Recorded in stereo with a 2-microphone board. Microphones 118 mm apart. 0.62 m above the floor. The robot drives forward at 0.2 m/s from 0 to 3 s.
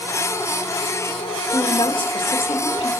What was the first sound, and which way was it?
A woman speaking, 45° left (ahead or behind).